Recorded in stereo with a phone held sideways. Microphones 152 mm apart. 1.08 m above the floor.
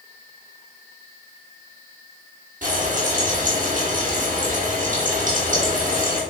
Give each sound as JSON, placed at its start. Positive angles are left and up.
{"t": 2.6, "sound": "frying", "side_deg": -60, "distance_m": 3.5}